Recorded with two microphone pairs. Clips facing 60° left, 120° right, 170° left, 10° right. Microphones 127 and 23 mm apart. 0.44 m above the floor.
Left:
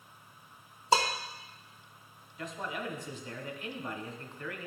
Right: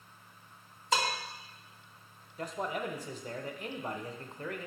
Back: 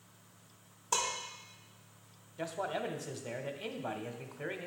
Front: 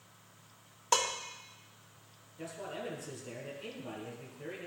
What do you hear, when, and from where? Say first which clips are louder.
0.9 s dishes clattering: left 4 dB, front 4 dB; 10° left, 0.8 m
2.4 s a man speaking: right 3 dB, back 5 dB; 170° right, 1.1 m